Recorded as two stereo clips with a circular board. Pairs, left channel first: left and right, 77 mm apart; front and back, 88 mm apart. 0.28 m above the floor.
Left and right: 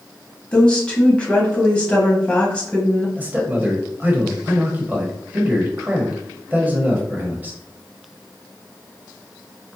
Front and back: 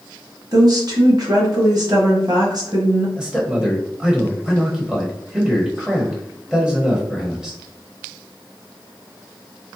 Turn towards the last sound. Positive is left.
turn(degrees=-110)